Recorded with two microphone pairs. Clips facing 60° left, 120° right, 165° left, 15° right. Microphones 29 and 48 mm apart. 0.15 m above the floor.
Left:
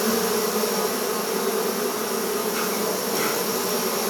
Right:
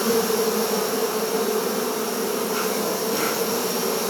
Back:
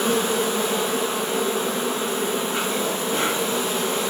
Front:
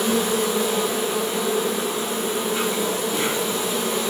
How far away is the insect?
About 0.9 m.